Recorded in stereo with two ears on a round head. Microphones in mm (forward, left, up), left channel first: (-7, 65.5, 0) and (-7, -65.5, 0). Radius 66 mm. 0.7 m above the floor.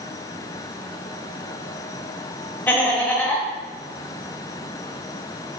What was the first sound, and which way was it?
Laughter, 15° left (ahead or behind).